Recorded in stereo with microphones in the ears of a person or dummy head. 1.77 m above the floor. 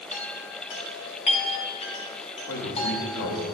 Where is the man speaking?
85° left, 4 m.